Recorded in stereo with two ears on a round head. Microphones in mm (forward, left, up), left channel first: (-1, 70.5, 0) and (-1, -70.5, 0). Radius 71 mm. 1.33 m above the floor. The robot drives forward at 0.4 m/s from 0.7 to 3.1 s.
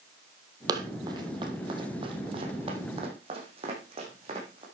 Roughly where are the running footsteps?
Right.